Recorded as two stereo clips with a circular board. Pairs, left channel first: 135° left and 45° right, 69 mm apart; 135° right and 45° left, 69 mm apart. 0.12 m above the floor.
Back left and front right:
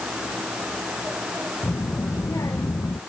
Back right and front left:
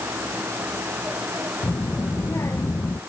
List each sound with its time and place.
1.6 s a child speaking: straight behind; by 3.0 s 175° left